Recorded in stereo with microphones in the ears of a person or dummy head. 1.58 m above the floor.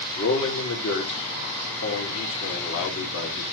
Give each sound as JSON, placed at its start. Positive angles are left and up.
{"t": 0.2, "sound": "a man speaking", "side_deg": 80, "distance_m": 2.0}